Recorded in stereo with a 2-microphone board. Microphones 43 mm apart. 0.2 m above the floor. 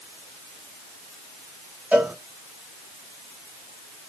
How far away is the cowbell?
About 1.5 m.